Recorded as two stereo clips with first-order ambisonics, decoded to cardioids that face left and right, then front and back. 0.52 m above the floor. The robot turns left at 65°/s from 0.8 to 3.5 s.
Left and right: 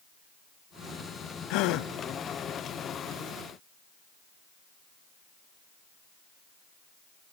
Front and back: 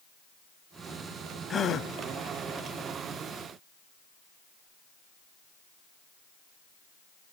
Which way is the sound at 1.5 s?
75° left.